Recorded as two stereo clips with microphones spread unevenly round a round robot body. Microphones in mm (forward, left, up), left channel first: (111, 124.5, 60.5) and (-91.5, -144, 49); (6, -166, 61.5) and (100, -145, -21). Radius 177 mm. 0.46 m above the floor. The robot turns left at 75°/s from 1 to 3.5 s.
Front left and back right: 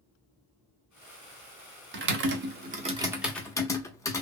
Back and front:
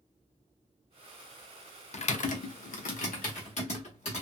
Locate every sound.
1.9 s typing on a keyboard: 110° right, 0.7 m; by 4.2 s 130° left, 0.7 m